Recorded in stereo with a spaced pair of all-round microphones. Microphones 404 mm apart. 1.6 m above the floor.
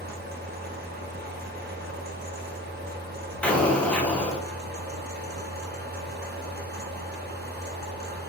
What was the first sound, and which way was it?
A fan, 25° right (ahead or behind).